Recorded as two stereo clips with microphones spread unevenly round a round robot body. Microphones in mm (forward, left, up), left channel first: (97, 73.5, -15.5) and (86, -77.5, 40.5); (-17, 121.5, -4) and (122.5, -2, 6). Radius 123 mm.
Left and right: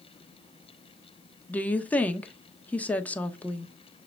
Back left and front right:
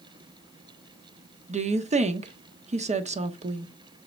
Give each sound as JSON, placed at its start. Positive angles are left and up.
{"t": 1.5, "sound": "a woman speaking", "azimuth_deg": 15, "distance_m": 1.2}